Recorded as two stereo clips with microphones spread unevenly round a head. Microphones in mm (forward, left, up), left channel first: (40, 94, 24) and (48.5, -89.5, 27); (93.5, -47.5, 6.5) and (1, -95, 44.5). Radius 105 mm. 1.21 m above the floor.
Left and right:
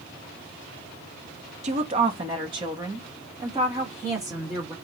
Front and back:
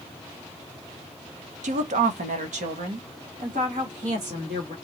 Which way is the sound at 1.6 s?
145° right.